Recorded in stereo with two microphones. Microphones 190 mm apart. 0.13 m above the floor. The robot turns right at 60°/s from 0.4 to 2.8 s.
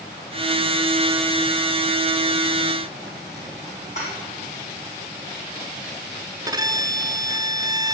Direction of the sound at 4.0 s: 40° left (ahead or behind).